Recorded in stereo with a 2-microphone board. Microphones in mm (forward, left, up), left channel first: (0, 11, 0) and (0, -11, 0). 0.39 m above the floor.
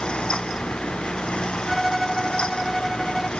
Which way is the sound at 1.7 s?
20° right (ahead or behind).